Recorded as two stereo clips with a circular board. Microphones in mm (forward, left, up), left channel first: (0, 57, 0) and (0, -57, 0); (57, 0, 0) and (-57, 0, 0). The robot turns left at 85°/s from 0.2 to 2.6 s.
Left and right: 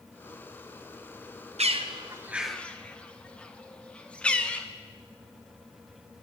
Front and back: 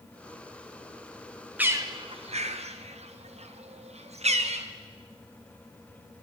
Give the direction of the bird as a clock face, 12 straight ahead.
3 o'clock.